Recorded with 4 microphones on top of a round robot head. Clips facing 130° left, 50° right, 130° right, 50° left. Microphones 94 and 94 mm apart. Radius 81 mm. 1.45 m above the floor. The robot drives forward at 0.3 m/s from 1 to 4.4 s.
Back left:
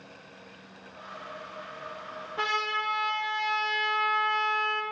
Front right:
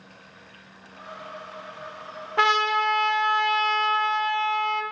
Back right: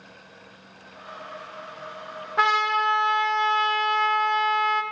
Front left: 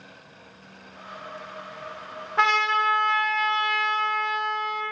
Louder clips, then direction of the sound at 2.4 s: Front right 9 dB, even; 45° right.